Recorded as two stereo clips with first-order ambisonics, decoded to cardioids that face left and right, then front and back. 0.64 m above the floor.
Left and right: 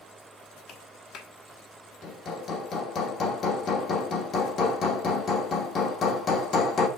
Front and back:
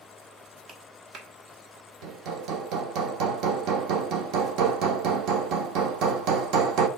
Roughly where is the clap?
Behind left.